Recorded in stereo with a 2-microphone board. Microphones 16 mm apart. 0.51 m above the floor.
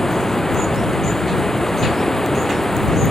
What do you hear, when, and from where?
0.0 s running water: 30° left (ahead or behind)